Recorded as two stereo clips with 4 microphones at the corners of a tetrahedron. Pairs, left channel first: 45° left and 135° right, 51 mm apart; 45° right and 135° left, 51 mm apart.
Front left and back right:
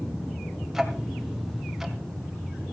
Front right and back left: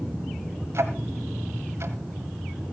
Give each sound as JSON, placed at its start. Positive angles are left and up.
{"t": 0.7, "sound": "ticking", "azimuth_deg": 145, "distance_m": 1.6}